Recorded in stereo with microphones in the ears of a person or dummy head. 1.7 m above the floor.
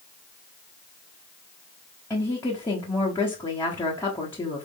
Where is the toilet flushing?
No toilet flushing in this recording.